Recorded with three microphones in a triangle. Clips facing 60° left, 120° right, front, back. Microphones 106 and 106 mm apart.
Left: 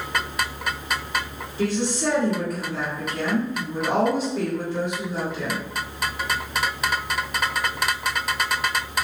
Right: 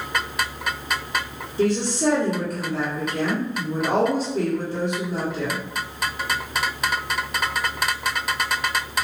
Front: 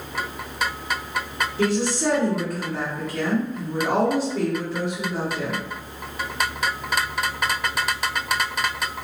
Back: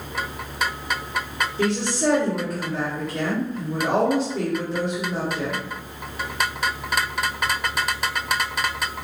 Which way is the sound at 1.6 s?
85° right.